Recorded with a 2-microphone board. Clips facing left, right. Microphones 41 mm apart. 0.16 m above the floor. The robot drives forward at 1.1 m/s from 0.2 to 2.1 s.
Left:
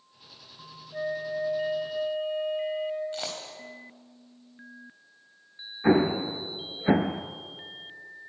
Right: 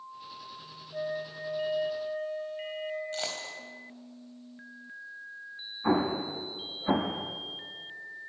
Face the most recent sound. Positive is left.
turn(degrees=50)  # may be behind; listen again after turning